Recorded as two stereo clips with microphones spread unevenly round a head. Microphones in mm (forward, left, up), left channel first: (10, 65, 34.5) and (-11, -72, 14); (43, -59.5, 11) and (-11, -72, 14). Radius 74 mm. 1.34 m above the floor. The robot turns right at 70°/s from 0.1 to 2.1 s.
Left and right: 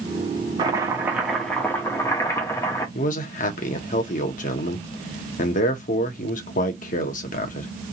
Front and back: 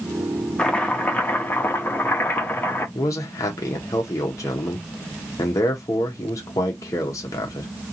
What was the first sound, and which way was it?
Chopping, 50° right.